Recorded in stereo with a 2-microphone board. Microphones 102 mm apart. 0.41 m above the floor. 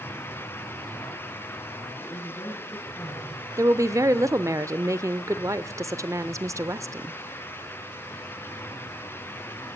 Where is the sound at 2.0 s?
20° left (ahead or behind), 9 m.